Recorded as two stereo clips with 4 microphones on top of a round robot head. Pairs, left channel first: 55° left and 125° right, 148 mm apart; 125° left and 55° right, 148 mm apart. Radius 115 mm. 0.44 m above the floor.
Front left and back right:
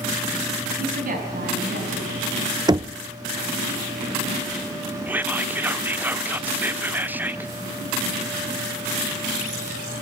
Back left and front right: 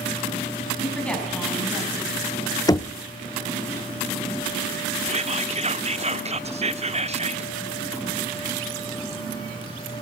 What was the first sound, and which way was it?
A woman speaking, 150° right.